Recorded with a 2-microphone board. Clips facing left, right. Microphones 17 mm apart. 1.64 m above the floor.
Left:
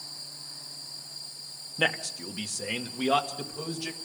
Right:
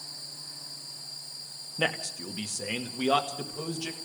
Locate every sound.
1.8 s a man speaking: 15° left (ahead or behind), 1.1 m; by 4.0 s 15° right (ahead or behind), 2.0 m